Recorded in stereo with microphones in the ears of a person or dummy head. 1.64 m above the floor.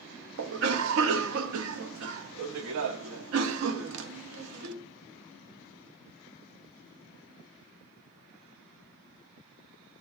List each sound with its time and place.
0.4 s a cough: 70° right (ahead or behind), 0.7 m